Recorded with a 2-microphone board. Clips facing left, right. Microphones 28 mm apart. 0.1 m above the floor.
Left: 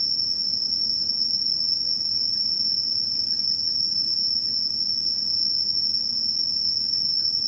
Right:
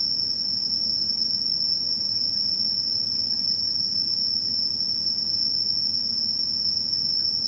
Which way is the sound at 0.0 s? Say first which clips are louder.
Left 1 dB; 5° left (ahead or behind).